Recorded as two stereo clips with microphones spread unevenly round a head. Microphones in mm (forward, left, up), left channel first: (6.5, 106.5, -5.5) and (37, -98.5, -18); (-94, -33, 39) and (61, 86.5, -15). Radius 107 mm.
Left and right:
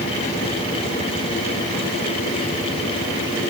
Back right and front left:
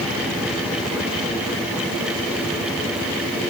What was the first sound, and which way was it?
Only background noise.